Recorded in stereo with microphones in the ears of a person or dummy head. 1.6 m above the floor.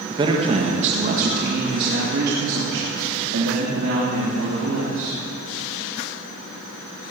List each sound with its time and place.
0.1 s a man speaking: 25° right (ahead or behind), 1.6 m; by 5.2 s 80° right, 4 m